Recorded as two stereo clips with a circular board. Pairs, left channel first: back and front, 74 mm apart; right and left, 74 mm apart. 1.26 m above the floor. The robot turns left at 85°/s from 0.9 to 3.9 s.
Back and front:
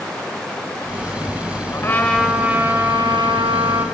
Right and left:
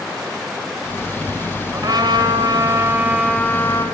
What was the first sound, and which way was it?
A trumpet, 140° left.